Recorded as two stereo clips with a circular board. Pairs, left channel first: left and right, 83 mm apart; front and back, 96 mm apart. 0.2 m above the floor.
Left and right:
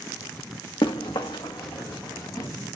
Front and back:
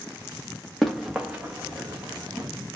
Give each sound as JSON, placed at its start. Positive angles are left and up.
{"t": 0.8, "sound": "running footsteps", "azimuth_deg": 90, "distance_m": 0.9}